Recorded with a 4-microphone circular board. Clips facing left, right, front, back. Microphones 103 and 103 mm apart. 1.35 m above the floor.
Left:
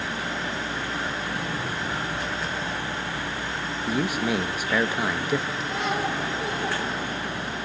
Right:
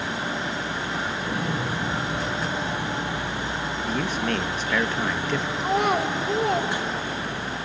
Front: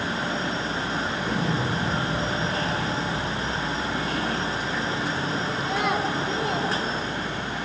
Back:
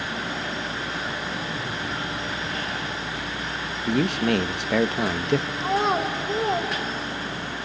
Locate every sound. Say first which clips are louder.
1.2 s an explosion: right 3 dB, front 5 dB; 25° right, 0.8 m
3.9 s a man speaking: left 2 dB, back 5 dB; 170° left, 1.3 m
5.6 s a child speaking: right 5 dB, back 2 dB; 120° right, 2.5 m